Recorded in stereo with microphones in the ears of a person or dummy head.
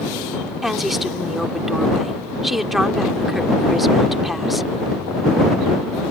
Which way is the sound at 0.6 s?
Centre (ahead or behind).